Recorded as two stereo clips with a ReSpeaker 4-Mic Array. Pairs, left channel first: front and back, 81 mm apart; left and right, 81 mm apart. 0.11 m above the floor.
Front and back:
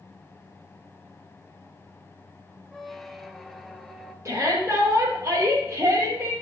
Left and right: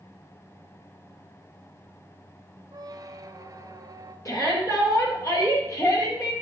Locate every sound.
2.7 s a squeak: 90° right, 0.6 m
4.2 s a shout: 130° left, 3 m